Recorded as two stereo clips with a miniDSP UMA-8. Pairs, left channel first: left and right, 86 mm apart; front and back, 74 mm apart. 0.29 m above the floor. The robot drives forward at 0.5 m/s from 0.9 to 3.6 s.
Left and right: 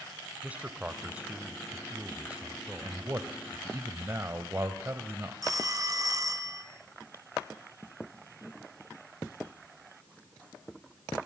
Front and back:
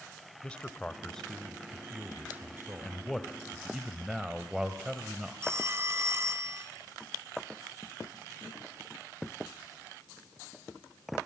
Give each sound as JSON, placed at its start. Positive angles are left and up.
{"t": 0.4, "sound": "a man speaking", "azimuth_deg": -50, "distance_m": 1.0}
{"t": 2.8, "sound": "a man speaking", "azimuth_deg": -70, "distance_m": 1.1}
{"t": 5.4, "sound": "a phone ringing", "azimuth_deg": -130, "distance_m": 1.4}